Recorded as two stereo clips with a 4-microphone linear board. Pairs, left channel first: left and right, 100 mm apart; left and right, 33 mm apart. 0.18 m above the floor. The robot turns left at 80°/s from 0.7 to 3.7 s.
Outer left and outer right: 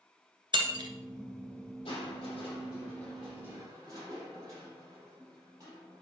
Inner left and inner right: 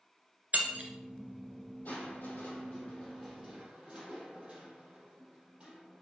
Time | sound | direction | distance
0.5 | breaking glass | 50° right (ahead or behind) | 1.8 m
1.9 | crushing | 110° left | 4.5 m